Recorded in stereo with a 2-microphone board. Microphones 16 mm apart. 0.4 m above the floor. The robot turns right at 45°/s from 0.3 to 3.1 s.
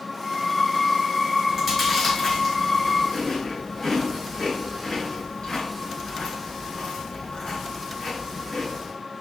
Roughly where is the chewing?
Centre.